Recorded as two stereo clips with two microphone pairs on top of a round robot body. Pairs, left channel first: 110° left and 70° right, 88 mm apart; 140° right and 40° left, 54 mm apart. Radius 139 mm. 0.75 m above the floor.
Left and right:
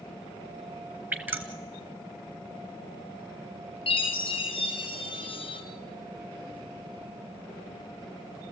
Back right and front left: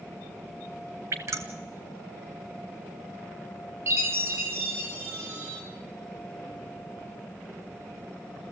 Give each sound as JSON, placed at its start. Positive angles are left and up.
{"t": 1.1, "sound": "dripping", "azimuth_deg": 0, "distance_m": 0.7}
{"t": 3.9, "sound": "a chime", "azimuth_deg": 90, "distance_m": 4.0}